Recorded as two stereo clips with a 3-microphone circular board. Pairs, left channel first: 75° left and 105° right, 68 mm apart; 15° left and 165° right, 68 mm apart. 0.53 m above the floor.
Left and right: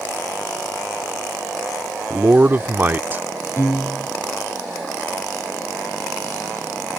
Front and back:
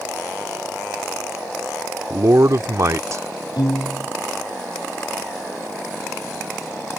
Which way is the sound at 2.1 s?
155° right.